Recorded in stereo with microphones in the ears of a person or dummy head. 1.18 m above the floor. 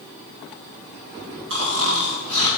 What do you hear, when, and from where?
1.5 s snoring: 75° right (ahead or behind), 3 m